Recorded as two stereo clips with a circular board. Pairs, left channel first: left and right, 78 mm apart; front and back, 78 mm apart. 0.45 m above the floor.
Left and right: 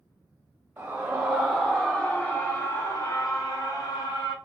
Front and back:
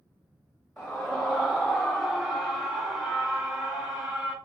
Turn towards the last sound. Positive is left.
turn(degrees=100)